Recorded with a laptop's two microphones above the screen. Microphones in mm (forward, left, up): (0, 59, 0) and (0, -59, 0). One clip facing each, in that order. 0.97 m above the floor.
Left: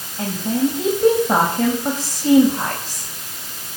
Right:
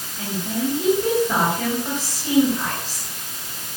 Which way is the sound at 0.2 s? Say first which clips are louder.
Left 5 dB; 40° left (ahead or behind).